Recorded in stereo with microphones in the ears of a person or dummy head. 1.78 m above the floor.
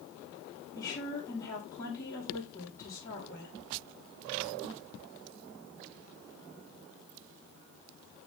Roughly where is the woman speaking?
Centre.